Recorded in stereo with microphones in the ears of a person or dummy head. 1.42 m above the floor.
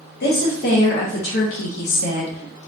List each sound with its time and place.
0.2 s a woman speaking: 45° left (ahead or behind), 1.0 m; by 2.7 s 30° left (ahead or behind), 0.9 m